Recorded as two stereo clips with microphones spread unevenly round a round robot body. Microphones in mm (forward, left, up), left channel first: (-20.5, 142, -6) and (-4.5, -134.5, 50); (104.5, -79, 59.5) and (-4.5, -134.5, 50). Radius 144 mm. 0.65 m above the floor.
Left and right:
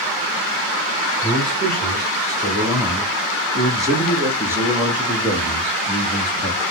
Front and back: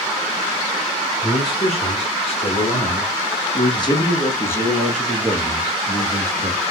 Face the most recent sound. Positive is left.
turn(degrees=165)